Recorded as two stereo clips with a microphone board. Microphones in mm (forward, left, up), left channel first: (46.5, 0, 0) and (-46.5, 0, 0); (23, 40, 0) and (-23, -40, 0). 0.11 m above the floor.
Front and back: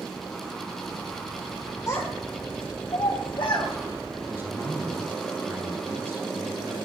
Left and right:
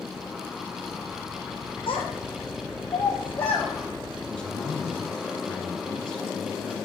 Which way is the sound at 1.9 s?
45° left.